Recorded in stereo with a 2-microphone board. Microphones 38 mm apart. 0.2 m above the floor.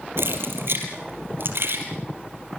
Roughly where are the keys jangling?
Right.